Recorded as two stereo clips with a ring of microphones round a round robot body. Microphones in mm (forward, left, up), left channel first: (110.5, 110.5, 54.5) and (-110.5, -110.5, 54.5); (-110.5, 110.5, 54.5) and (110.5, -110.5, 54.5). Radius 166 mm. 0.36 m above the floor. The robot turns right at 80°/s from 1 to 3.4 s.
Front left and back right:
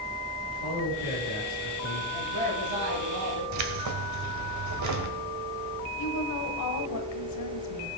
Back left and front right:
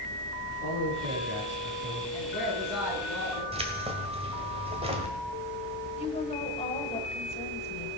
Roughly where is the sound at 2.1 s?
Behind.